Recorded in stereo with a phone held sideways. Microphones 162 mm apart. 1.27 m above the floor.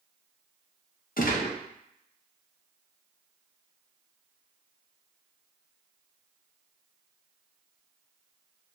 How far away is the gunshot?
About 0.6 m.